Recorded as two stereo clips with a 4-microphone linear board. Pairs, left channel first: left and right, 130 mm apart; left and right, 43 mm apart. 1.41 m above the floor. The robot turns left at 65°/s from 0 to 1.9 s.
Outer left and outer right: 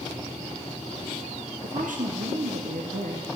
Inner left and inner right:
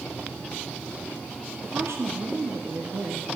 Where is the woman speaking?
70° right (ahead or behind), 0.8 m; by 3.3 s 90° right, 0.8 m.